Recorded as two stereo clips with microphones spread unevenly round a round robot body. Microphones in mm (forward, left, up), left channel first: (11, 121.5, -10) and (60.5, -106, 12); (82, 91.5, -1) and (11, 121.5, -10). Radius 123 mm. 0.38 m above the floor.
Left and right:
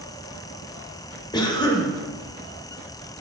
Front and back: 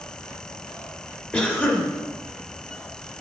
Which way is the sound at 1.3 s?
50° left.